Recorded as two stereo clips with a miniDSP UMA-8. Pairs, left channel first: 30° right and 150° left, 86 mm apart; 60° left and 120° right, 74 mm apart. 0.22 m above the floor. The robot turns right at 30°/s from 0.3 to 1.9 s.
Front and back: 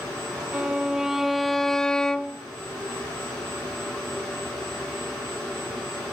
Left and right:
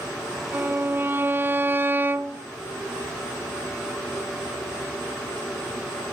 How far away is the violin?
About 0.5 m.